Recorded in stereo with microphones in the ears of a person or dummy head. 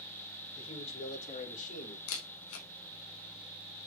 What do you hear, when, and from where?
0.6 s a man speaking: 30° left (ahead or behind), 5.5 m; by 2.0 s 40° left (ahead or behind), 5 m
2.1 s a camera shutter: 75° left (ahead or behind), 3.5 m